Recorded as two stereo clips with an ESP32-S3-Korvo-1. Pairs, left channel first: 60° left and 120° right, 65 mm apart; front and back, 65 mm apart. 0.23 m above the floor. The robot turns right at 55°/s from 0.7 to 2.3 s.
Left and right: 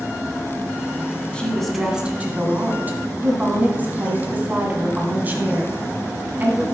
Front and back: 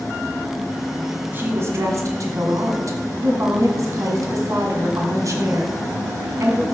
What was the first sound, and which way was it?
A woman speaking, 130° left.